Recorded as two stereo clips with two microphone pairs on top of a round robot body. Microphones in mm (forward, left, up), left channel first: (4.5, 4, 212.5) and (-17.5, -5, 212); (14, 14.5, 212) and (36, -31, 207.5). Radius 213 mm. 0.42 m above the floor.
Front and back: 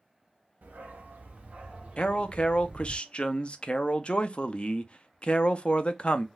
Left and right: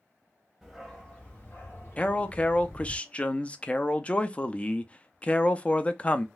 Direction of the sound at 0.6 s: 155° right.